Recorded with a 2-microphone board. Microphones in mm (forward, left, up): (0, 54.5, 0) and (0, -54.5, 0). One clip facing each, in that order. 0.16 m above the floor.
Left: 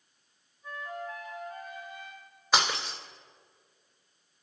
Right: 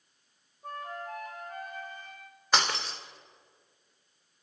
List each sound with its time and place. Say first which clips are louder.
0.6 s a flute: even; 50° right (ahead or behind), 2.5 m
2.5 s breaking glass: left 1 dB; 5° left (ahead or behind), 2.5 m